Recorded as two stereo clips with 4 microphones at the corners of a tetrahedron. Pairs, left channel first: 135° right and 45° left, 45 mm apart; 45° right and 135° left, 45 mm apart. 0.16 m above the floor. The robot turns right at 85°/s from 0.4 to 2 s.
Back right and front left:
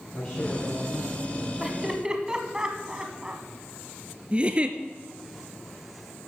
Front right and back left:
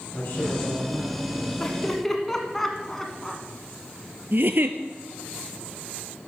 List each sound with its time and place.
0.1 s a man speaking: 65° right, 4.5 m; by 1.5 s 25° left, 4.5 m
1.6 s laughter: 15° right, 1.0 m; by 3.4 s 20° left, 1.0 m
4.3 s a giggle: 105° left, 0.7 m